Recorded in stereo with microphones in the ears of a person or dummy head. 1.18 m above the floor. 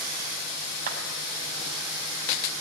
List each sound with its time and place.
0.9 s a clap: 45° right (ahead or behind), 6.5 m